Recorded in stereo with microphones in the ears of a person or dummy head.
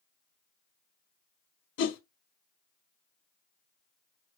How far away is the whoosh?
About 0.9 m.